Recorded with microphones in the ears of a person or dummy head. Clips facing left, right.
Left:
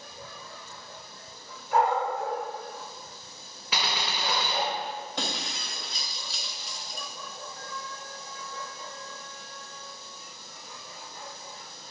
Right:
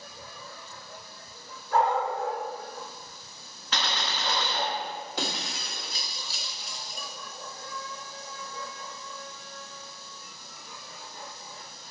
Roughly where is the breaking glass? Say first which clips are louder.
Right 1 dB; centre.